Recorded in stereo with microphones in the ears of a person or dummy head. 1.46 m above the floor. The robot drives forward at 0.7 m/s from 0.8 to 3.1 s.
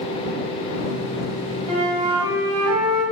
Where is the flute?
25° right (ahead or behind), 1.1 m.